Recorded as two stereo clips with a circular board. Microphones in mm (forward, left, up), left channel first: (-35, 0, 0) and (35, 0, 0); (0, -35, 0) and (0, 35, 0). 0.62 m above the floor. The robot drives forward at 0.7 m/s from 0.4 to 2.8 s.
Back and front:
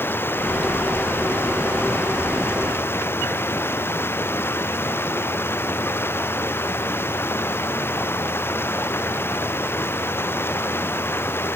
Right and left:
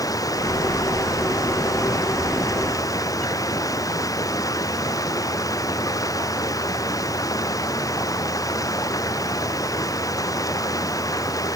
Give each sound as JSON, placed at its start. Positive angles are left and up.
{"t": 0.0, "sound": "running water", "azimuth_deg": -120}